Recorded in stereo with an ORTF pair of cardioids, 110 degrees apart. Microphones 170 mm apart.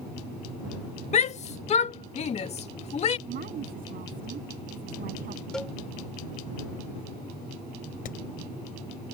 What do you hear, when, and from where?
1.1 s a shout: 40° left
3.3 s a woman speaking: 60° right
5.5 s a cowbell: 5° left
8.1 s hammering: 60° left